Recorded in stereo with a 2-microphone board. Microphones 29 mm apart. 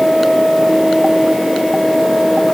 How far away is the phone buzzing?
I don't hear a phone buzzing.